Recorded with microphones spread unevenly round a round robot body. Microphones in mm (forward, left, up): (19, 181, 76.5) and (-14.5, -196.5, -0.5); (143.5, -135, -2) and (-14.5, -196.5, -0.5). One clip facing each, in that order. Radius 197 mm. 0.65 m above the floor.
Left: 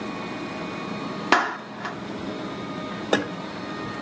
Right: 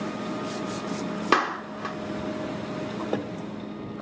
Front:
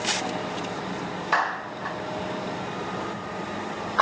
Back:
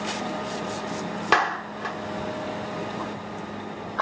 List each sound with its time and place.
1.3 s a clap: 165° left, 1.0 m